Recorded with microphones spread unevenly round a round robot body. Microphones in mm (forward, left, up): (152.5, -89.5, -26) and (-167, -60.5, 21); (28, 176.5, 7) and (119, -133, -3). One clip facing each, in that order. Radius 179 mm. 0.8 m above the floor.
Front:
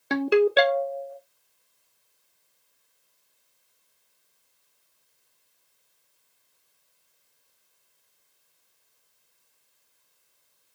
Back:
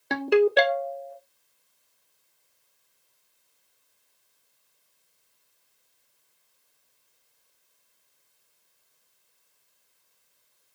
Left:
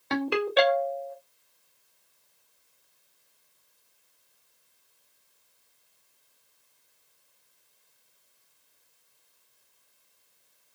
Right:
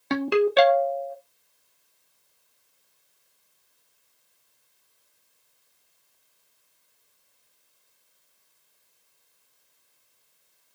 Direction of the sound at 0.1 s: 90° right.